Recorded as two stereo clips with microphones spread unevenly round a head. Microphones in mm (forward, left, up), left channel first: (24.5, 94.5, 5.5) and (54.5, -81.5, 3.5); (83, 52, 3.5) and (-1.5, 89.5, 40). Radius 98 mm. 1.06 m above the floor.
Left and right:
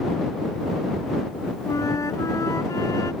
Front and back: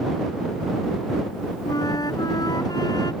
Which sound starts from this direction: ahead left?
A flute, at 1.7 s.